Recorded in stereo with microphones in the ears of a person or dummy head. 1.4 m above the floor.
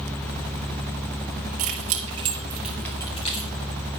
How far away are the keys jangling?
About 1.2 m.